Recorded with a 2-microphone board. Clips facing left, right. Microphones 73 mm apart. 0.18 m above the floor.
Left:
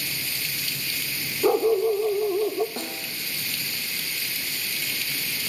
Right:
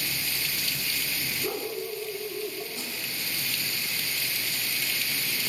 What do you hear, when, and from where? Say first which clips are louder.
1.4 s a dog barking: left 15 dB; 75° left (ahead or behind), 1.8 m
2.8 s a snare drum: left 3 dB; 65° left (ahead or behind), 3 m